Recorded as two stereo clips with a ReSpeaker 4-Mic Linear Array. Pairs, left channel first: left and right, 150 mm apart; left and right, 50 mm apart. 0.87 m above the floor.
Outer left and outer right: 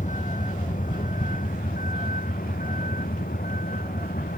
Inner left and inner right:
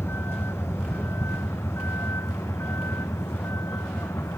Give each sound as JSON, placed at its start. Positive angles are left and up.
{"t": 0.0, "sound": "a vehicle", "side_deg": 60}